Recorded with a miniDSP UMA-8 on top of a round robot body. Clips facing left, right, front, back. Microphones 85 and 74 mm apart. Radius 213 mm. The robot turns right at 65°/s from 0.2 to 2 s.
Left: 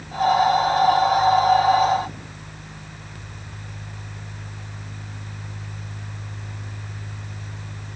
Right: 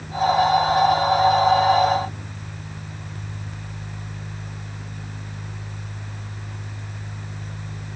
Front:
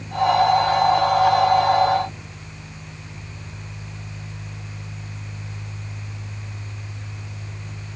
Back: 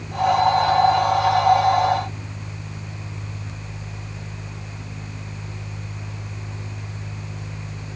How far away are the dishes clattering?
I don't hear dishes clattering.